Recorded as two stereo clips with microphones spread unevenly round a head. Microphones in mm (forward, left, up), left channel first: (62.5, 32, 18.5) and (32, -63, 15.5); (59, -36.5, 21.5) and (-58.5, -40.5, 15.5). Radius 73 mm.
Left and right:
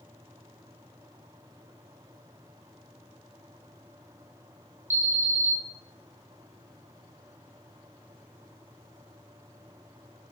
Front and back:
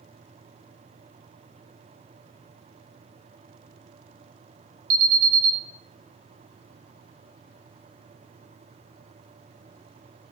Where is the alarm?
Straight behind, 0.7 m.